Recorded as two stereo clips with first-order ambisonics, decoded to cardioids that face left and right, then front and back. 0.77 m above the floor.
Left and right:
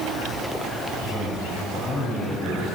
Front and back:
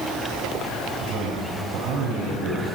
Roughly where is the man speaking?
Behind.